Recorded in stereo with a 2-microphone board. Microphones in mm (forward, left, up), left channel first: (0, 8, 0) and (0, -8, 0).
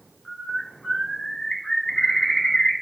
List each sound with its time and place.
0.2 s a bird: 50° left (ahead or behind), 1.1 m